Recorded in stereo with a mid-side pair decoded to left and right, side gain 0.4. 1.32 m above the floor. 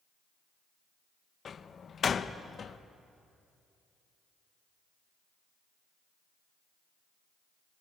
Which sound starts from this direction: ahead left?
A door slam, at 1.4 s.